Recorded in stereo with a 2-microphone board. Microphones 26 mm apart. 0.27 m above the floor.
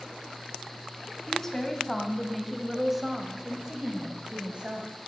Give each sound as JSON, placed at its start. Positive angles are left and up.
{"t": 1.3, "sound": "a woman speaking", "side_deg": 15, "distance_m": 1.8}